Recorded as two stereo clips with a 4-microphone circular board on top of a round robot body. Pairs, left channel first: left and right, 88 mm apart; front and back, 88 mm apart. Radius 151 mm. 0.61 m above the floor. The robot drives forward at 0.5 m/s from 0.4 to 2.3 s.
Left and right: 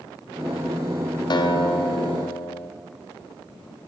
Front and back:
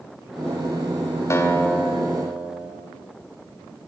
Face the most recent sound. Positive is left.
turn(degrees=100)